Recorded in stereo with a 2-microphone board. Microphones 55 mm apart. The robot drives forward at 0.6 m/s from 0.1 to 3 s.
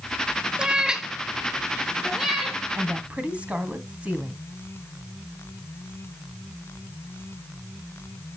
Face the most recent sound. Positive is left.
turn(degrees=-20)  # may be behind; listen again after turning